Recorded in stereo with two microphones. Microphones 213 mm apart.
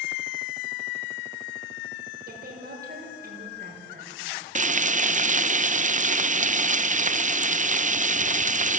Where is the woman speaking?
45° right (ahead or behind), 6.5 m.